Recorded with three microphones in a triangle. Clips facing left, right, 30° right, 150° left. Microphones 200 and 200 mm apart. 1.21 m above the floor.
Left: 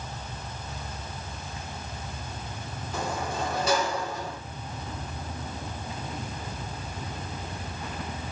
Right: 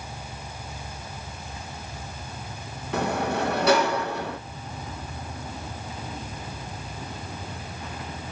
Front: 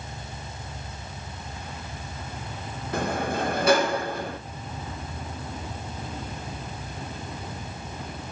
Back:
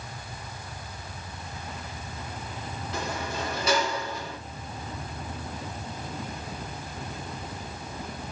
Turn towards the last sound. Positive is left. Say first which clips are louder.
# right 6 dB, front 7 dB
turn(degrees=-65)